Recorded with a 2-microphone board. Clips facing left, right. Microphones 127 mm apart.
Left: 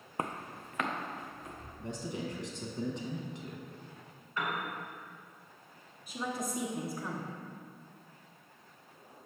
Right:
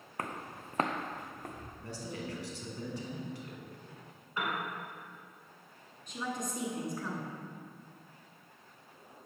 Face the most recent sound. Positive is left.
turn(degrees=5)  # may be behind; listen again after turning